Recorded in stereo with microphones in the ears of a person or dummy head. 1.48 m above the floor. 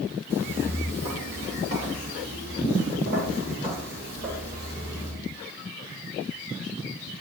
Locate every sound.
0.3 s footsteps: 55° right (ahead or behind), 2.5 m; by 5.1 s 50° right (ahead or behind), 6.5 m